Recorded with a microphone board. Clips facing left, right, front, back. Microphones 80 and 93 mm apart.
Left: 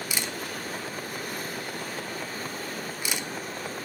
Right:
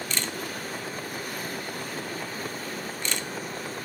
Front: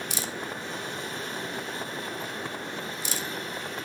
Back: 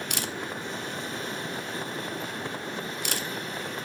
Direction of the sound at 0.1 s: 170° left.